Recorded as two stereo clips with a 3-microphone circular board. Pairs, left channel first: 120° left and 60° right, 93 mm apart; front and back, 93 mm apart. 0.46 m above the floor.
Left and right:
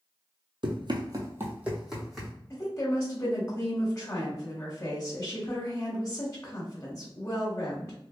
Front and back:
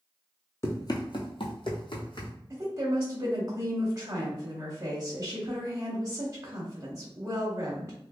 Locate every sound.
0.6 s running footsteps: 55° right, 0.9 m; by 2.3 s 35° left, 1.6 m
2.5 s a woman speaking: 145° left, 1.1 m